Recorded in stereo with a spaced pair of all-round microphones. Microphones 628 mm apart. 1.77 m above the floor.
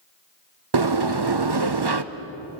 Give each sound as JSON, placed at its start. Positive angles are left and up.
{"t": 0.7, "sound": "a sliding door", "side_deg": -40, "distance_m": 0.8}